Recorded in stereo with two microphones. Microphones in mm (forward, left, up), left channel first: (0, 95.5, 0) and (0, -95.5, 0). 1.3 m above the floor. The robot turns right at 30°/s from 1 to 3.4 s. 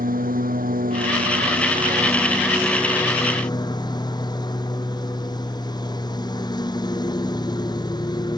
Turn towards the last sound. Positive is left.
turn(degrees=25)